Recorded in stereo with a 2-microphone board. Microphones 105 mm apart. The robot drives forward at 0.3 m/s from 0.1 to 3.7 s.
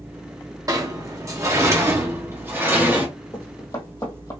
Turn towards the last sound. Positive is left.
turn(degrees=30)  # may be behind; listen again after turning